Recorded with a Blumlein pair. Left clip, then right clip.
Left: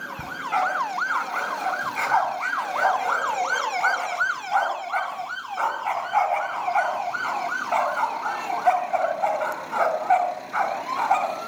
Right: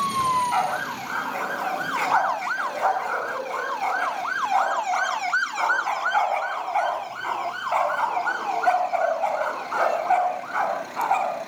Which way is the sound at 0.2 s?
Straight ahead.